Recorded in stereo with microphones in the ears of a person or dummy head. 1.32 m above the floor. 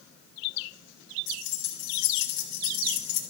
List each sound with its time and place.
1.3 s keys jangling: 70° left (ahead or behind), 1.4 m